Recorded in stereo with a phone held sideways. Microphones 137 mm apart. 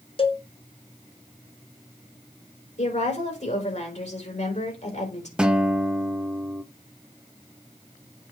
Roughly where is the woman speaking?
Left.